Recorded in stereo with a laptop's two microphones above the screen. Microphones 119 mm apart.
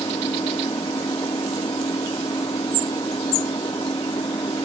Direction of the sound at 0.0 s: 40° left (ahead or behind).